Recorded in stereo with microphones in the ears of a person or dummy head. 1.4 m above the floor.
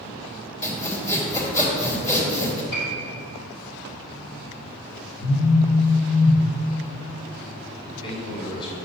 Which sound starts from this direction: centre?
Sawing, at 0.6 s.